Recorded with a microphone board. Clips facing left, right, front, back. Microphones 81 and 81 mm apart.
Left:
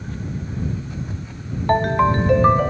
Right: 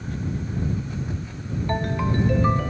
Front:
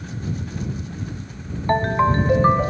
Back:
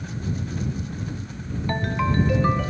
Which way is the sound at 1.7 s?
55° left.